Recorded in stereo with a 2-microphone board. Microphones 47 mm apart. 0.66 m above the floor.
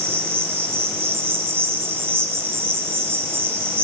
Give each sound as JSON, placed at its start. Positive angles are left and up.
{"t": 0.0, "sound": "an insect", "side_deg": -60, "distance_m": 2.5}